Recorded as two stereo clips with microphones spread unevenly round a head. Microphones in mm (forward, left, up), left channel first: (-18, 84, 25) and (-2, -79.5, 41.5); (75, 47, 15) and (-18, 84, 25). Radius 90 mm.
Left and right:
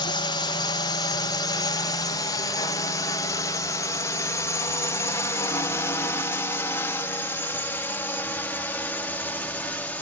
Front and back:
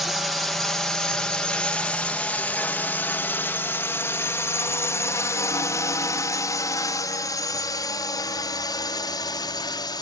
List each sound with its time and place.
0.0 s a drone: 65° left; by 10.0 s 15° left